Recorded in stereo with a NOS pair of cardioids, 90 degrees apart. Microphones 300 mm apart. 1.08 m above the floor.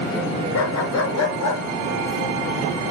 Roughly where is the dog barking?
Ahead left.